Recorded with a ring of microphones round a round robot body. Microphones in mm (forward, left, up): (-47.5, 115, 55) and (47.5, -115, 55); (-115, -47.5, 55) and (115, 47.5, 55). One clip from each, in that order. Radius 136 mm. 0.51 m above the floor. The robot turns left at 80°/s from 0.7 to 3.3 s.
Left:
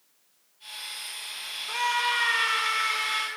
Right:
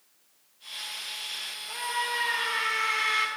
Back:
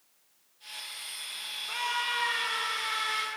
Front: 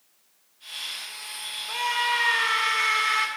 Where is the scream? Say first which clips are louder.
Left 5 dB, front 6 dB; 125° left, 4.5 m; by 3.3 s straight ahead, 4.5 m.